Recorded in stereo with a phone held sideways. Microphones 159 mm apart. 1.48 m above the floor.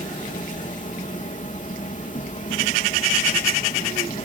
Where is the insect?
50° left (ahead or behind).